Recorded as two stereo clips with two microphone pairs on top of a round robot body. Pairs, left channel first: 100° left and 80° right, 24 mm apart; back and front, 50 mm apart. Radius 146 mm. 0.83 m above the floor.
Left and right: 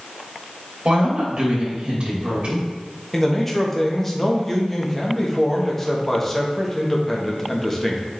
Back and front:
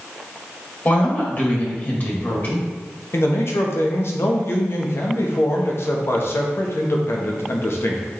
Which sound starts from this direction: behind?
A man speaking, at 3.1 s.